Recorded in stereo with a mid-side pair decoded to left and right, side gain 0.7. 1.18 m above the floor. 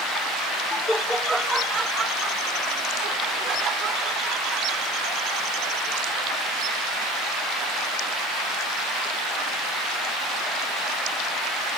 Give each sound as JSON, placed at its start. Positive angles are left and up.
{"t": 0.7, "sound": "laughter", "azimuth_deg": 15}